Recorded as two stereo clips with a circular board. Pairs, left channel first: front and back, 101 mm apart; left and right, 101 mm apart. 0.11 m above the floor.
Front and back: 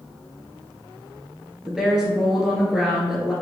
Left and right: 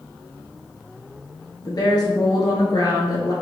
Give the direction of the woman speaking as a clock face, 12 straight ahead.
9 o'clock.